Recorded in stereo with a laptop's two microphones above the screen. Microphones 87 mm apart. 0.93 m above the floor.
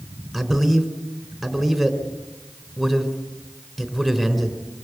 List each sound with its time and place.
0.3 s a man speaking: centre (ahead or behind), 4 m